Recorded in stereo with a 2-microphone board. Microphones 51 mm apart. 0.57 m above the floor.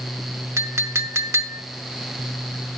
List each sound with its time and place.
0.6 s a clink: 65° right (ahead or behind), 0.8 m